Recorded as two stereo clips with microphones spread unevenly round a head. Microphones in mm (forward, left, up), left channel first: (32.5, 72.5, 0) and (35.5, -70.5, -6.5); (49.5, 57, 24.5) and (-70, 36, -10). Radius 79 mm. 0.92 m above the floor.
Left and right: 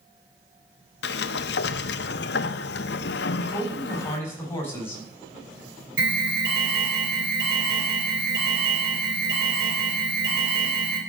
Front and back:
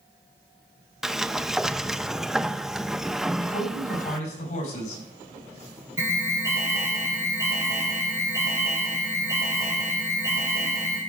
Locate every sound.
1.0 s a sliding door: 100° left, 0.6 m
3.4 s a man speaking: 20° left, 6.5 m
6.0 s an alarm: 100° right, 3.5 m